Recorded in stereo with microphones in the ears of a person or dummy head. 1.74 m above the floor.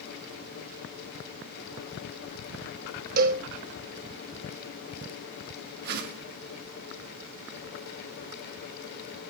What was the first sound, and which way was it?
A cowbell, 50° right (ahead or behind).